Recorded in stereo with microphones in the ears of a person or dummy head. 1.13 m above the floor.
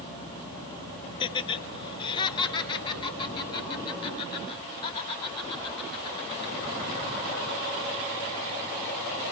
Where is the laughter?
30° left (ahead or behind), 1.4 m.